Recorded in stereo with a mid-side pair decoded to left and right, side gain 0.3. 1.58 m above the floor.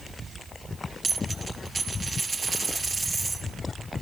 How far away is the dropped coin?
About 6.5 m.